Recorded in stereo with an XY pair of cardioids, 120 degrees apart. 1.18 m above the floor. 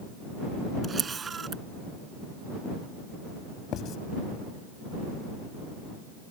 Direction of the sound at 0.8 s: 30° right.